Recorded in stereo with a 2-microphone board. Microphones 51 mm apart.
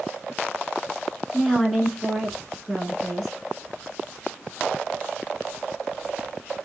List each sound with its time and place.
1.3 s a woman speaking: 5° left (ahead or behind), 1.3 m